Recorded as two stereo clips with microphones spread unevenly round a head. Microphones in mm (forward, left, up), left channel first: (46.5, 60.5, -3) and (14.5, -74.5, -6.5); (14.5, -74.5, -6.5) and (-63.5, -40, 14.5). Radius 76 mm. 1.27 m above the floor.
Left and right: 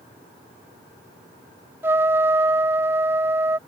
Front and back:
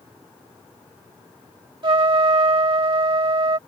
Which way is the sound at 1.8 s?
Straight behind.